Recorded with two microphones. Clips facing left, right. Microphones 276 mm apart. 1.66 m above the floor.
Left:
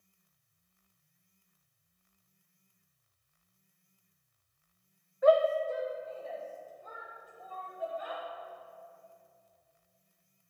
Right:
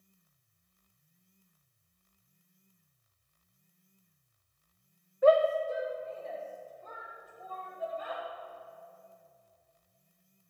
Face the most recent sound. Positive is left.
turn(degrees=15)  # may be behind; listen again after turning